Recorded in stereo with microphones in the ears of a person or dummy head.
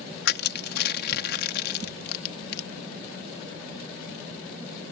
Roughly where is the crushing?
Left.